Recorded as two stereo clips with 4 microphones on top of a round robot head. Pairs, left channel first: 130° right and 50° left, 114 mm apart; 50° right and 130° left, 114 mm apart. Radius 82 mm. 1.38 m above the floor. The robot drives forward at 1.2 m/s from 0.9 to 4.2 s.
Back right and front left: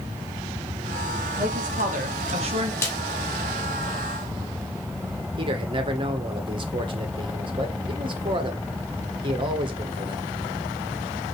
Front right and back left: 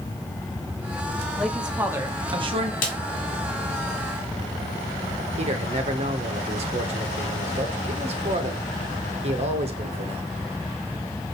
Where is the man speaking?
95° left, 1.3 m.